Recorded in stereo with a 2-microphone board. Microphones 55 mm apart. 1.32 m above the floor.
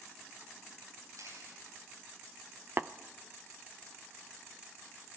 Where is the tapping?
40° right (ahead or behind), 0.5 m.